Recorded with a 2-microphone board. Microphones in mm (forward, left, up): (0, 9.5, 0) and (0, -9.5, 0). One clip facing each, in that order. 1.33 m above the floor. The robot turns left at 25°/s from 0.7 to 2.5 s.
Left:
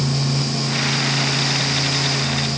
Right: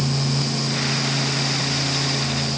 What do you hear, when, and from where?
Only background noise.